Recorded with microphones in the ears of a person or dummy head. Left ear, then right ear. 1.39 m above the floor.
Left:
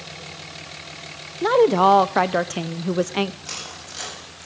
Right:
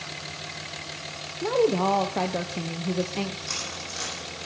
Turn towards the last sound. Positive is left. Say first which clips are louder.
# right 2 dB
turn(degrees=60)  # may be behind; listen again after turning